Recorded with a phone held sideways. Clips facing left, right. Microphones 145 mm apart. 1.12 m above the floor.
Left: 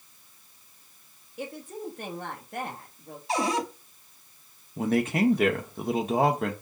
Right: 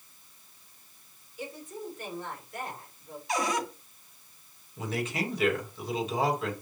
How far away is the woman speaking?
About 2 m.